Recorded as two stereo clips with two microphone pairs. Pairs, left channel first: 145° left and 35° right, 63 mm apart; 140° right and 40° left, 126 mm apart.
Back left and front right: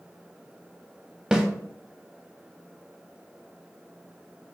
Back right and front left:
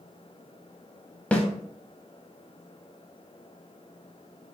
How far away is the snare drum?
About 0.7 m.